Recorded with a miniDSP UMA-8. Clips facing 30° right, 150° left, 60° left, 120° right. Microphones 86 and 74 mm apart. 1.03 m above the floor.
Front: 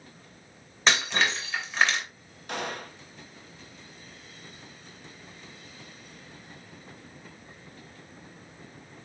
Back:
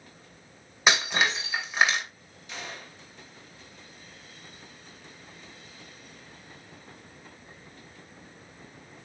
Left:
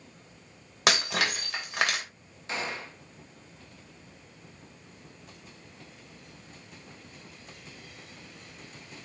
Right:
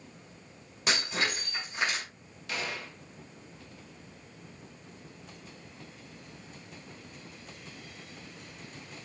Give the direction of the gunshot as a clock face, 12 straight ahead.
12 o'clock.